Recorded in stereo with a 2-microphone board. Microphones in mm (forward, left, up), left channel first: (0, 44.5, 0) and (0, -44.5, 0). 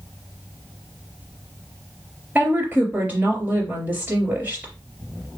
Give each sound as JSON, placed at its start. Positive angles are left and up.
{"t": 2.4, "sound": "a woman speaking", "side_deg": -20, "distance_m": 3.0}